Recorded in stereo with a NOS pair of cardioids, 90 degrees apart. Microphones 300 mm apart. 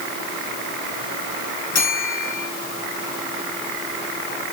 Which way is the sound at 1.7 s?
60° left.